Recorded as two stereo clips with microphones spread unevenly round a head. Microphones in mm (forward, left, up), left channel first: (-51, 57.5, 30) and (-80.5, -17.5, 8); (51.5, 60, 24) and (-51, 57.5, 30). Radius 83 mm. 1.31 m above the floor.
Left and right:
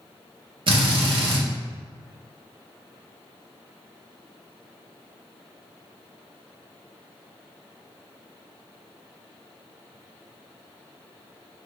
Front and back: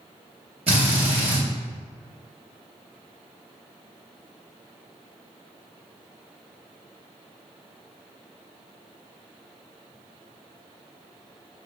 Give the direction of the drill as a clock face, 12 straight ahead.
4 o'clock.